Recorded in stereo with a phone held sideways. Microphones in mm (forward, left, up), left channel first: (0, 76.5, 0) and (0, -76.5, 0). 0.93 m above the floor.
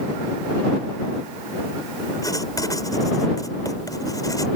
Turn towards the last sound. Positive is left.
turn(degrees=25)  # may be behind; listen again after turning